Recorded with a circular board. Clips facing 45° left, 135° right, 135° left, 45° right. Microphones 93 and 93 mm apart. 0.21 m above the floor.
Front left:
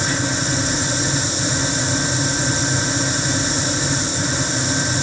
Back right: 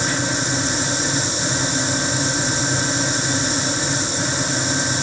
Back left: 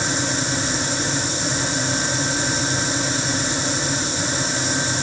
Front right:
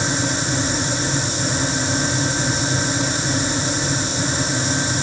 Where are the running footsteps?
I don't hear running footsteps.